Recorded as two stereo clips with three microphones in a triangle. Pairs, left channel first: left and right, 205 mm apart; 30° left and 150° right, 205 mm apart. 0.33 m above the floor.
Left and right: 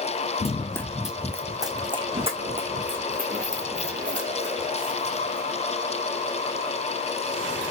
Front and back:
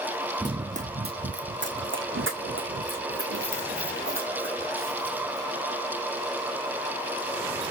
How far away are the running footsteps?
About 0.5 m.